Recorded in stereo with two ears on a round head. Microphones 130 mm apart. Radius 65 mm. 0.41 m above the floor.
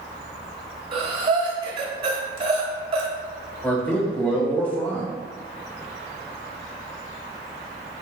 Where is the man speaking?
10° left (ahead or behind), 1.2 m.